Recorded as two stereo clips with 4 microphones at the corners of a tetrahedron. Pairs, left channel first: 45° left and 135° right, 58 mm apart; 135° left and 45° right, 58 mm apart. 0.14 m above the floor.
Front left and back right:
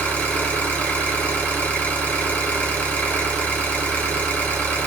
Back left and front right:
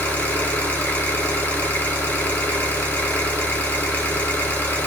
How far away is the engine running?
About 1.5 m.